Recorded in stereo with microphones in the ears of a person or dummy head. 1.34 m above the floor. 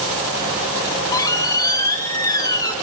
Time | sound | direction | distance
0.8 | a squeak | 15° left (ahead or behind) | 2 m